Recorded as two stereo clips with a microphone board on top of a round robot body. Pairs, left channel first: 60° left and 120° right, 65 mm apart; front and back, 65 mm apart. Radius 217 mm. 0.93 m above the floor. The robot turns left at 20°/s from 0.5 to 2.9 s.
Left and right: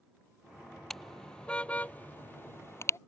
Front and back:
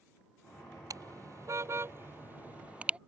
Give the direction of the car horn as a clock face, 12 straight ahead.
7 o'clock.